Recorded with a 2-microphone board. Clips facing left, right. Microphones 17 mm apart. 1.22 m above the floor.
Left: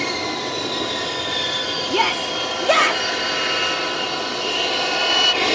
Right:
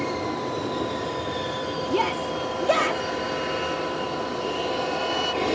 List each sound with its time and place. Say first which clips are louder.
0.0 s an aircraft: left 4 dB; 60° left (ahead or behind); by 5.6 s 55° left (ahead or behind)
1.9 s a shout: left 4 dB; 60° left (ahead or behind)